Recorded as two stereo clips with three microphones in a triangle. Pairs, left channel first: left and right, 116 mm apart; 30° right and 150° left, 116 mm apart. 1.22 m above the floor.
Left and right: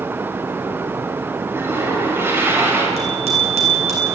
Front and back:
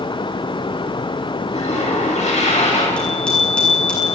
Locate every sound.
1.5 s a toilet flushing: 20° right, 6.5 m
3.0 s a bicycle bell: 110° right, 8.5 m